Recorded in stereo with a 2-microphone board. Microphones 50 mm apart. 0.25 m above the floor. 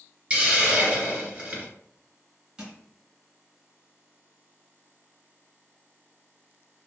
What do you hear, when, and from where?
0.3 s a hiss: 30° right (ahead or behind), 1.4 m
2.6 s crushing: 15° right (ahead or behind), 1.6 m